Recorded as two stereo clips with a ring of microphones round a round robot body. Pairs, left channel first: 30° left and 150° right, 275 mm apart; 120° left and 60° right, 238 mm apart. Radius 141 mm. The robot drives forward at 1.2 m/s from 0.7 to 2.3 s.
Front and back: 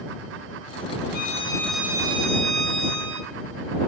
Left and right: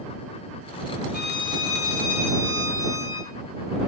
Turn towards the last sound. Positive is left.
turn(degrees=145)